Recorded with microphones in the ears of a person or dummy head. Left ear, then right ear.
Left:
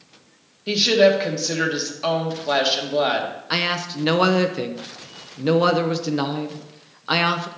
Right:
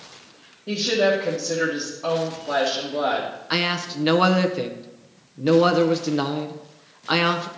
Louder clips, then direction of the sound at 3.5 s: Left 1 dB; centre (ahead or behind).